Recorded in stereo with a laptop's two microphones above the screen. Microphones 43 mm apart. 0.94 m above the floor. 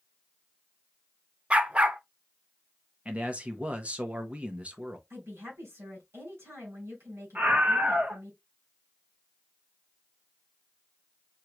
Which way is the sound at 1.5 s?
30° right (ahead or behind).